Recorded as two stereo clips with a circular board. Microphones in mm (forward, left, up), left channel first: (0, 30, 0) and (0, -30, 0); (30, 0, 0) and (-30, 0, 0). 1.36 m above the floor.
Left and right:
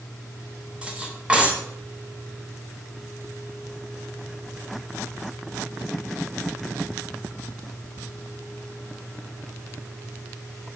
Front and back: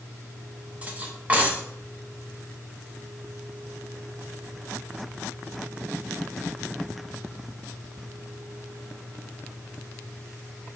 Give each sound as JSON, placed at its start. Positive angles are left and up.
{"t": 0.8, "sound": "cutlery clinking", "azimuth_deg": -145, "distance_m": 0.6}